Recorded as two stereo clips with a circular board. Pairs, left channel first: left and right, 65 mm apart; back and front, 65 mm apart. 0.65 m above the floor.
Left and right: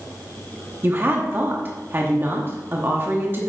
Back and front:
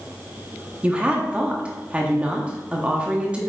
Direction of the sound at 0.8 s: 60° right.